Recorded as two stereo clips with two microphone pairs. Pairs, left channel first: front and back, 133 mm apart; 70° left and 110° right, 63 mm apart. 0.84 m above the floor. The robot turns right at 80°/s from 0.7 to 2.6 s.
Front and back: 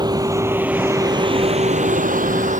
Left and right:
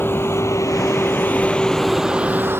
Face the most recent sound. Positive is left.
turn(degrees=-155)